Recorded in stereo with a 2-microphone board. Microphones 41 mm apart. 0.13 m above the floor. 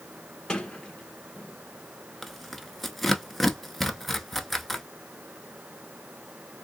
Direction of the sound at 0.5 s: 20° left (ahead or behind).